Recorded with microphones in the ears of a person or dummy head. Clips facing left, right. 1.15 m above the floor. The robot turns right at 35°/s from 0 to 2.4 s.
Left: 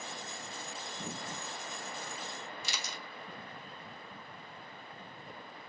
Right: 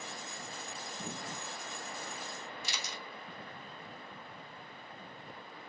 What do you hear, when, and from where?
2.6 s a camera shutter: 65° left (ahead or behind), 0.8 m